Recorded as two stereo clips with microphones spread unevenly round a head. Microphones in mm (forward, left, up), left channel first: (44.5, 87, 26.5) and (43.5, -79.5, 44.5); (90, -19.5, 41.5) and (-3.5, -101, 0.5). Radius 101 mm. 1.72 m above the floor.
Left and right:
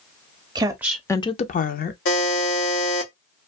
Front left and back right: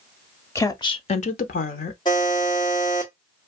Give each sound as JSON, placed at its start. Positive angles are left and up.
{"t": 0.6, "sound": "a woman speaking", "azimuth_deg": -25, "distance_m": 0.6}
{"t": 2.0, "sound": "a buzzer", "azimuth_deg": 95, "distance_m": 1.1}